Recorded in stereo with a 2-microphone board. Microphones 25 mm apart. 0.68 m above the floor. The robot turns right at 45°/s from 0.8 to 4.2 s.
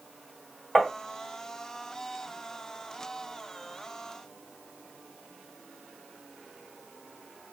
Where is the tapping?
15° left (ahead or behind), 1.3 m; by 0.9 s 10° left (ahead or behind), 1.3 m.